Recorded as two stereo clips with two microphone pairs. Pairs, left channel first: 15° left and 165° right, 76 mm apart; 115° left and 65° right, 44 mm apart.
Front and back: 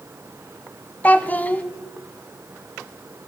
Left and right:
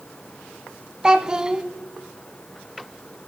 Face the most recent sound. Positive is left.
turn(degrees=-20)